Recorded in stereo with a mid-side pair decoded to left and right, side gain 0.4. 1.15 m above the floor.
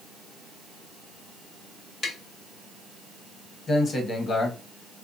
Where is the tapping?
50° left, 1.1 m.